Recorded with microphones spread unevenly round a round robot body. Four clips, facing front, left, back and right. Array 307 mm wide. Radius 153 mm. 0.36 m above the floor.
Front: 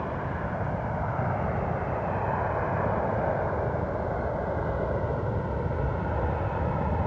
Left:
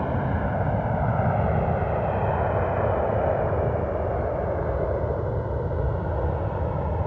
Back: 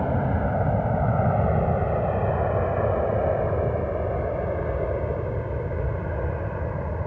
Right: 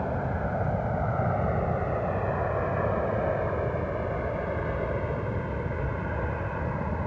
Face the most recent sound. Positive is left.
turn(degrees=100)